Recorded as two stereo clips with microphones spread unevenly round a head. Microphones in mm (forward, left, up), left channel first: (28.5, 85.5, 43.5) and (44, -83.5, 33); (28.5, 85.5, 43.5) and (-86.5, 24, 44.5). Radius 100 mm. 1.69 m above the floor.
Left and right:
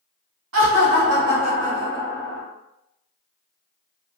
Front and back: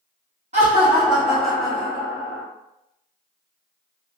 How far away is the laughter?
About 1.0 m.